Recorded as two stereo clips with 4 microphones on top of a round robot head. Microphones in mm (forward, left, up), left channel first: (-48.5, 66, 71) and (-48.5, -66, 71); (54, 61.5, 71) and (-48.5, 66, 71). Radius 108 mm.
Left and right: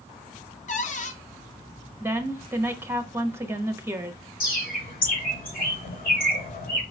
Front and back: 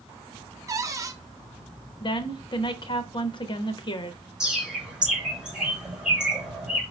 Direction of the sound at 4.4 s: 95° left.